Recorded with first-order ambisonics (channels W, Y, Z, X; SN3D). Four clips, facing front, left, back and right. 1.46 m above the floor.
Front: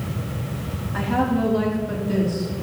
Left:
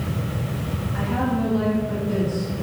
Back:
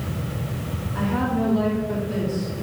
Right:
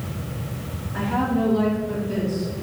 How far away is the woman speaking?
About 3 m.